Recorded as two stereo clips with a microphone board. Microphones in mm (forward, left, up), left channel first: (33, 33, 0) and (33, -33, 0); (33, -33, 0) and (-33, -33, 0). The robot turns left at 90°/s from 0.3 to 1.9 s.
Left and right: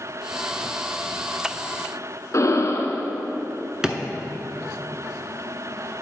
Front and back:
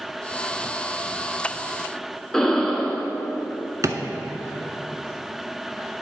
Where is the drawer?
165° right, 0.5 m.